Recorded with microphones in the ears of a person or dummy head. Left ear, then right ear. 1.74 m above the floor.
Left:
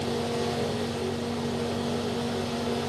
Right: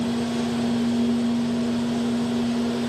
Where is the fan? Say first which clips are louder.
Right 2 dB; 20° right (ahead or behind), 1.5 m.